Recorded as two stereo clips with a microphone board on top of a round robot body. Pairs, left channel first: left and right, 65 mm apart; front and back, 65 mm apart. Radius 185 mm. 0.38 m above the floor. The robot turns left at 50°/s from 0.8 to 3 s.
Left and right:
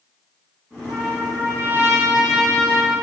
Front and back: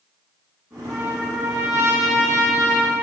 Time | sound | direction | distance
0.9 | a trumpet | 100° right | 6.5 m